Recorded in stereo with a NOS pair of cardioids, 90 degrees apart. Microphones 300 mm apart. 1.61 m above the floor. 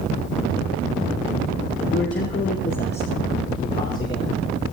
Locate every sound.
1.9 s a man speaking: 40° left, 3.5 m; by 4.4 s 30° left, 5 m